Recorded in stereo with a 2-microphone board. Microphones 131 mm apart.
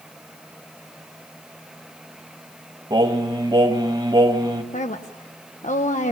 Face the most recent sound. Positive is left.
turn(degrees=70)  # may be behind; listen again after turning